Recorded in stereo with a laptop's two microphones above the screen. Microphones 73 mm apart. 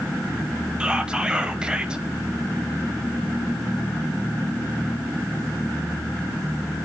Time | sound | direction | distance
0.8 | whispering | 10° right (ahead or behind) | 0.6 m